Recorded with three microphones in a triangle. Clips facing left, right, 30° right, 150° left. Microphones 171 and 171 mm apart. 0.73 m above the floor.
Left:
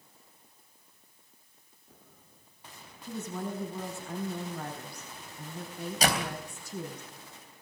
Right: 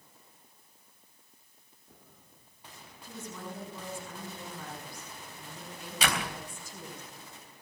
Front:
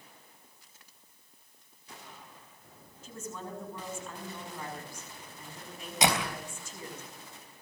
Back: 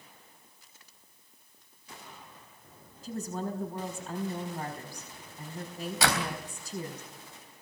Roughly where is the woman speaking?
Left.